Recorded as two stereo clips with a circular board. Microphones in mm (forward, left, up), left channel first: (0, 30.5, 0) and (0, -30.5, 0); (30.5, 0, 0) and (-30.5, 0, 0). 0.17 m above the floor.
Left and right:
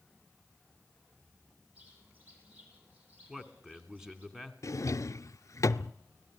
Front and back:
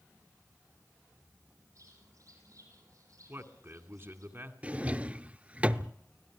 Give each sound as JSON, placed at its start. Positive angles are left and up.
{"t": 1.8, "sound": "a bird", "azimuth_deg": -155, "distance_m": 7.5}
{"t": 3.3, "sound": "a man speaking", "azimuth_deg": -165, "distance_m": 1.9}
{"t": 4.6, "sound": "a drawer", "azimuth_deg": 115, "distance_m": 0.6}